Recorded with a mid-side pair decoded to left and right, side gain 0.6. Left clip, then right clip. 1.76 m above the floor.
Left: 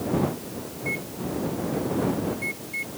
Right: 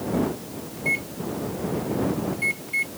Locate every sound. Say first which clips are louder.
0.8 s a microwave: right 6 dB; 35° right